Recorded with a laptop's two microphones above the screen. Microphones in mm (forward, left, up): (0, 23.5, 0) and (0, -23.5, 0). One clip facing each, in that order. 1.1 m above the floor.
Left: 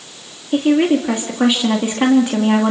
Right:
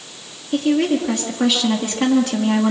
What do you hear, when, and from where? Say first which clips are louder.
0.5 s a woman speaking: left 3 dB; 25° left (ahead or behind), 1.9 m